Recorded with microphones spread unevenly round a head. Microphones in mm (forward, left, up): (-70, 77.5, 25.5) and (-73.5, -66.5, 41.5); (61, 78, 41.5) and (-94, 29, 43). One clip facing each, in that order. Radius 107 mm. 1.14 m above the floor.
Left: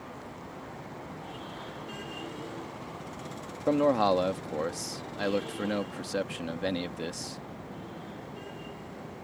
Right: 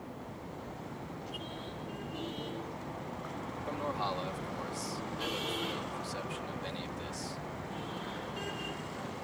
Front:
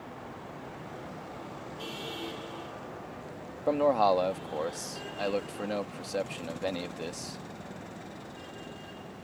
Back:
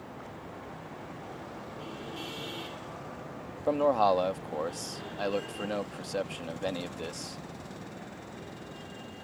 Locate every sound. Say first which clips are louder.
3.7 s a man speaking: left 14 dB, even; 105° left